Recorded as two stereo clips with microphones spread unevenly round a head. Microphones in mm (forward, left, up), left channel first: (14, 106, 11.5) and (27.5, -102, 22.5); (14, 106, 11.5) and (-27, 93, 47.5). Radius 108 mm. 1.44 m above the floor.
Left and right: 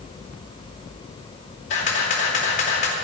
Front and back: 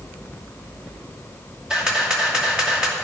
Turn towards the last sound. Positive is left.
turn(degrees=135)